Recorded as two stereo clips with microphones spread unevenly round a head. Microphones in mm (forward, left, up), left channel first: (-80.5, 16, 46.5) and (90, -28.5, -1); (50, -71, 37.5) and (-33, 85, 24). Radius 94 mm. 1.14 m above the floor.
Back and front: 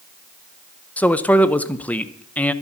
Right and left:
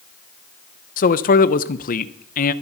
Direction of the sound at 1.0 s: 105° right.